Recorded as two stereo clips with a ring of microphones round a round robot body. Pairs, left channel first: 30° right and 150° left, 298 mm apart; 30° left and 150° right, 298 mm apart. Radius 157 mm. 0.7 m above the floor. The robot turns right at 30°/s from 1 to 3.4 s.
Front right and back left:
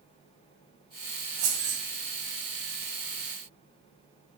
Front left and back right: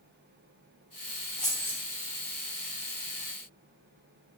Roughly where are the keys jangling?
Behind left.